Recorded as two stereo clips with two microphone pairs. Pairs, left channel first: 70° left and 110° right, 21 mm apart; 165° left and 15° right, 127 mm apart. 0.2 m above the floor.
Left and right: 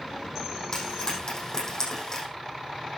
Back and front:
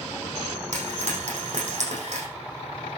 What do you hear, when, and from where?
0.7 s frying: 15° left, 6 m